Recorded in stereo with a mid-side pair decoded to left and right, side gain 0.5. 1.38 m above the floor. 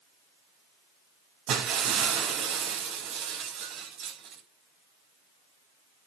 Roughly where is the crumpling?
No crumpling in this recording.